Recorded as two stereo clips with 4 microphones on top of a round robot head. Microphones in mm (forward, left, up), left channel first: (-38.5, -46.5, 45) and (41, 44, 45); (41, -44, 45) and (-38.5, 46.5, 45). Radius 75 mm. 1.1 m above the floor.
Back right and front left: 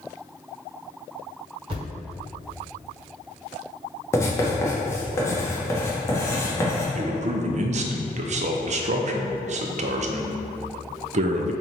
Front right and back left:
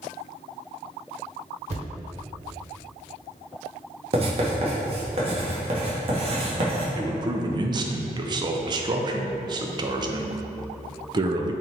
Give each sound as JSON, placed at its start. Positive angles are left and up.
{"t": 1.7, "sound": "a thud", "azimuth_deg": 100, "distance_m": 1.6}
{"t": 4.1, "sound": "writing", "azimuth_deg": 165, "distance_m": 1.2}
{"t": 7.0, "sound": "a man speaking", "azimuth_deg": 75, "distance_m": 0.5}